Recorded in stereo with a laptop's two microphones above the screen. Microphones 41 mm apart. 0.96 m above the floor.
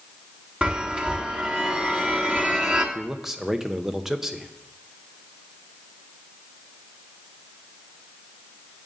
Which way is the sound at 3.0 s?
10° right (ahead or behind).